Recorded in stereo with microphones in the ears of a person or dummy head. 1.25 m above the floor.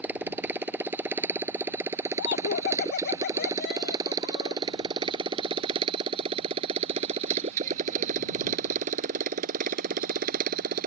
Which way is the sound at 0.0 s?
Centre (ahead or behind).